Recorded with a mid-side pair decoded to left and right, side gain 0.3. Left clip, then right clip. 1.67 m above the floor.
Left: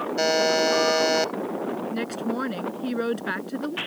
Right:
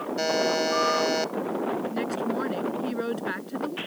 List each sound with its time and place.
0.2 s a buzzer: 50° left
1.9 s a woman speaking: 40° left